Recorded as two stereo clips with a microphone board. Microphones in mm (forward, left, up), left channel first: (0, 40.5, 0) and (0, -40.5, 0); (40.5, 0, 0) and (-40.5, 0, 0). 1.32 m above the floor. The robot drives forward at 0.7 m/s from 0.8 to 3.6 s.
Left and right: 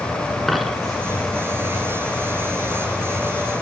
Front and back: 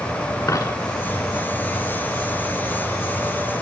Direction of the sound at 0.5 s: 5° left.